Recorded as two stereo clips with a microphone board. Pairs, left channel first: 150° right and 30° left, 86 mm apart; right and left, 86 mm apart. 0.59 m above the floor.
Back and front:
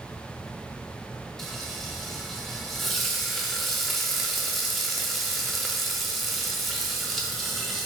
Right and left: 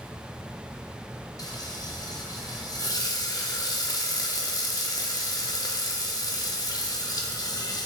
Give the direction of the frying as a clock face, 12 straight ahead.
2 o'clock.